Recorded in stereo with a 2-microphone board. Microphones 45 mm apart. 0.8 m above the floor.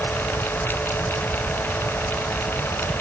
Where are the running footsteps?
I don't hear running footsteps.